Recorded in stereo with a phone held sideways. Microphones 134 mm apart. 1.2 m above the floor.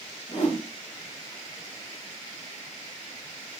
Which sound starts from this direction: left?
A whoosh, at 0.3 s.